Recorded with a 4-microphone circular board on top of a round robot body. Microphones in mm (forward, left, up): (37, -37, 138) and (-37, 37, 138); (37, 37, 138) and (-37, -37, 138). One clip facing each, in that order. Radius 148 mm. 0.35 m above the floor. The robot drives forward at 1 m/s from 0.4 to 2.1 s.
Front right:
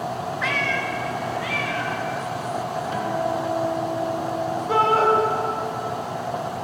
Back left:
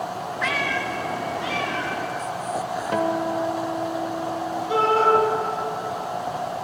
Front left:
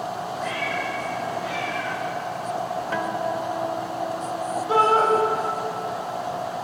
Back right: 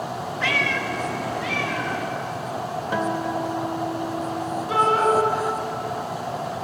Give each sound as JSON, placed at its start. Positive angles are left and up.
{"t": 0.4, "sound": "a cat meowing", "azimuth_deg": -135, "distance_m": 0.7}
{"t": 2.9, "sound": "a guitar", "azimuth_deg": 155, "distance_m": 1.4}
{"t": 4.7, "sound": "a shout", "azimuth_deg": -10, "distance_m": 3.0}